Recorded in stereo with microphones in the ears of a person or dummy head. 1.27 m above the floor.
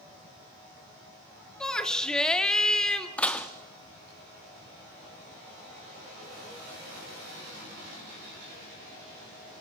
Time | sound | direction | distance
1.6 | a shout | 5° left (ahead or behind) | 2.5 m
3.2 | dishes clattering | 10° left (ahead or behind) | 1.3 m